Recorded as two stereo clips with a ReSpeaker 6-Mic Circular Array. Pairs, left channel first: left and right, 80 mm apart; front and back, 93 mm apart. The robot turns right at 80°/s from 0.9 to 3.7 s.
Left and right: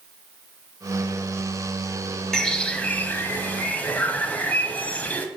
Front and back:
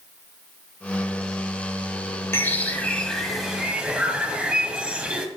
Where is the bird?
10° left, 1.3 m; by 5.3 s 120° left, 1.3 m.